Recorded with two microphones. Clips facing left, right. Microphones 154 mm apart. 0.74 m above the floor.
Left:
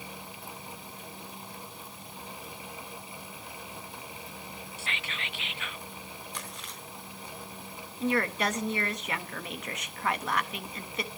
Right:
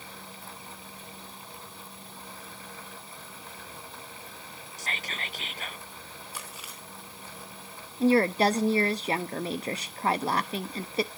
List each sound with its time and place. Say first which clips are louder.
4.8 s whispering: right 3 dB; 35° right (ahead or behind), 0.6 m
6.3 s chewing: left 1 dB; 5° right (ahead or behind), 3.5 m
8.0 s a woman speaking: right 7 dB; 30° right (ahead or behind), 0.9 m